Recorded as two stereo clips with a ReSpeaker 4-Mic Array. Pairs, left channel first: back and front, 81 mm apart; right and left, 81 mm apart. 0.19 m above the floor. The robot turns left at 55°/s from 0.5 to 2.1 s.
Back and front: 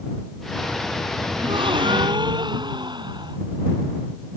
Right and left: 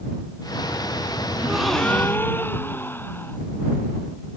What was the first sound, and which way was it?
A gasp, 15° left.